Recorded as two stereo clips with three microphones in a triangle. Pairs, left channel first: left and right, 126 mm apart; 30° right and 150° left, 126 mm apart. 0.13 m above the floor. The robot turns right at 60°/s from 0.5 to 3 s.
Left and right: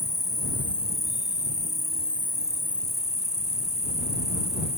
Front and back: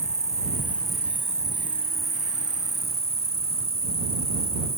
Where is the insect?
35° left; by 4.8 s 175° right.